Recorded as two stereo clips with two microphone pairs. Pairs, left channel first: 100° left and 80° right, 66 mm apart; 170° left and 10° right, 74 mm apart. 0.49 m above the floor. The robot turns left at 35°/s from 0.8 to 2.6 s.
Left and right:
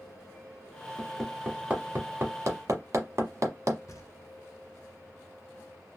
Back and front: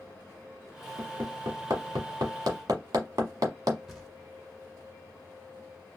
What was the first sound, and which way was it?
Hammering, 15° left.